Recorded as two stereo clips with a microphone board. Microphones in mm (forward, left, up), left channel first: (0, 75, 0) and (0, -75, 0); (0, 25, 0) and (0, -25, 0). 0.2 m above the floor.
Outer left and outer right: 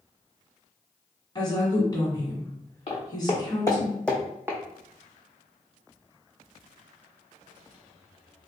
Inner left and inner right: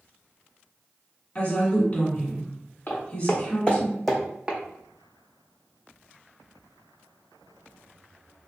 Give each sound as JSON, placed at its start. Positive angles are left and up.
{"t": 1.4, "sound": "a woman speaking", "side_deg": 30, "distance_m": 1.8}
{"t": 2.9, "sound": "footsteps", "side_deg": 45, "distance_m": 1.3}